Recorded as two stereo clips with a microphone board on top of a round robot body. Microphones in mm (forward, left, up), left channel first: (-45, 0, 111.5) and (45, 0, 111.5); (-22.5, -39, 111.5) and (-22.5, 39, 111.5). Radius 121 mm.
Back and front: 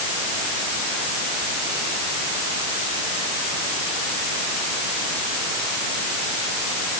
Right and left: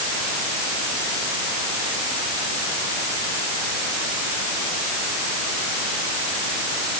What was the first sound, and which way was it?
Only background noise.